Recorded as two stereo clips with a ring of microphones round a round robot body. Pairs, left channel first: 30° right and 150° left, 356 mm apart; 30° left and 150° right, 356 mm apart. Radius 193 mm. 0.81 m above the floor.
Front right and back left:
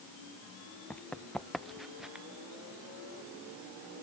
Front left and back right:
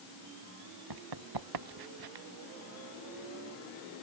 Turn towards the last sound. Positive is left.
turn(degrees=-125)